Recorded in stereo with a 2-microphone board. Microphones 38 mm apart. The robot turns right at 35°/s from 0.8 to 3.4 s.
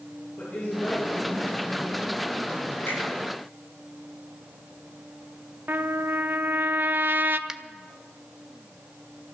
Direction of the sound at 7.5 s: 20° right (ahead or behind).